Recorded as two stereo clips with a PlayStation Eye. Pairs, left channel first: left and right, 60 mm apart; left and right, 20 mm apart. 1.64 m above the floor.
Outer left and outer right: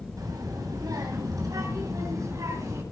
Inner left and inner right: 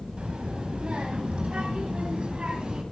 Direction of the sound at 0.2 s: 85° right.